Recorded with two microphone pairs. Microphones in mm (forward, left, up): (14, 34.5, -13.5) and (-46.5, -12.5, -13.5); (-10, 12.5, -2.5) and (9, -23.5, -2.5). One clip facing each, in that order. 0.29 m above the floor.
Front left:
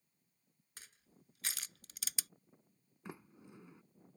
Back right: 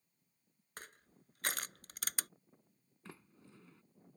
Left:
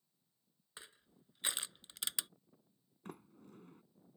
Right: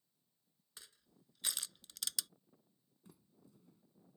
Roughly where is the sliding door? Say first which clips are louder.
Front left 4 dB, left 12 dB; left.